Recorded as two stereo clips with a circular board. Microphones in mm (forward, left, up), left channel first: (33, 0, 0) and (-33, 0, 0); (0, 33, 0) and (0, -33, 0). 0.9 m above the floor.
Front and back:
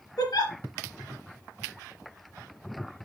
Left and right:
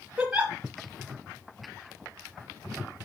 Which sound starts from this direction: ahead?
A giggle, at 0.2 s.